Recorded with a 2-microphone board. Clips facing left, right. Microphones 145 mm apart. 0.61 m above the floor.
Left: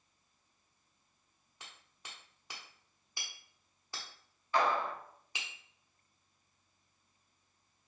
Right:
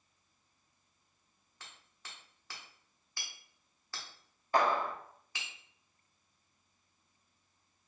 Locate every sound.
1.6 s hammering: 15° left (ahead or behind), 1.0 m
4.5 s a clap: 50° right (ahead or behind), 0.7 m